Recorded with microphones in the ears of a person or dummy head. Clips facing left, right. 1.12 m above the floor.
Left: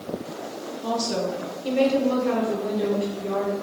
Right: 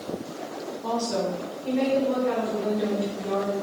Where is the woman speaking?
20° left (ahead or behind), 1.0 m; by 3.5 s 30° left (ahead or behind), 1.3 m.